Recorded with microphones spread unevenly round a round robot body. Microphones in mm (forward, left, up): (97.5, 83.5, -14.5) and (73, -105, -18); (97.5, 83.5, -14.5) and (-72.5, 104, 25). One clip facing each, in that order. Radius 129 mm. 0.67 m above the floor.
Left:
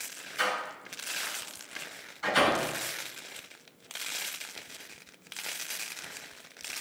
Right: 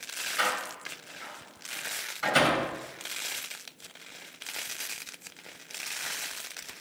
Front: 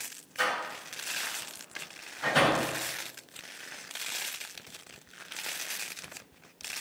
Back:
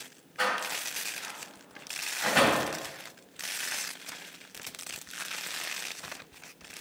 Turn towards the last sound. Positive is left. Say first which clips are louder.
# even, back 1 dB
turn(degrees=-75)